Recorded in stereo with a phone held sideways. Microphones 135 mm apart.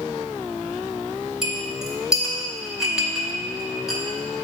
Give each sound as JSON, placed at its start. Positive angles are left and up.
{"t": 1.4, "sound": "a clink", "side_deg": -5, "distance_m": 1.5}